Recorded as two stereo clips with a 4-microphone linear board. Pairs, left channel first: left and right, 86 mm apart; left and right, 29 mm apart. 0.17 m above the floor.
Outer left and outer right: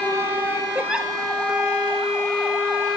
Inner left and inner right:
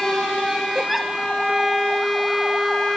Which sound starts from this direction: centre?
A giggle, at 0.8 s.